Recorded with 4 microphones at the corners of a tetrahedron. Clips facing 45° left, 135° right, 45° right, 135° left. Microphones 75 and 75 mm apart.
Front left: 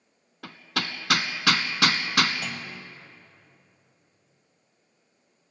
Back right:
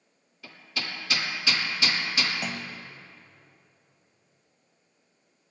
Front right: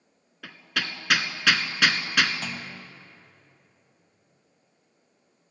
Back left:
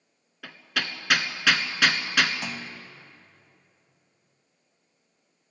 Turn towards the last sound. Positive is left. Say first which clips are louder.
# back right 1 dB, even
turn(degrees=-165)